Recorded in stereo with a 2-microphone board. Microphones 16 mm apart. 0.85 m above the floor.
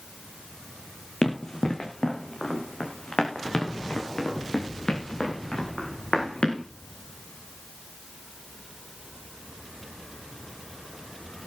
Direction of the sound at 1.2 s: 50° left (ahead or behind).